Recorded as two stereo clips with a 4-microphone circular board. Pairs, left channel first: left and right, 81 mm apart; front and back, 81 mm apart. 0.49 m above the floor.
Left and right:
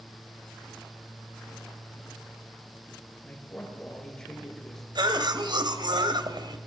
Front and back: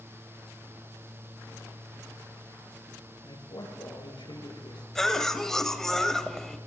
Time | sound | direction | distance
3.2 | a man speaking | 15° left | 8.5 m
5.0 | a cough | 85° right | 2 m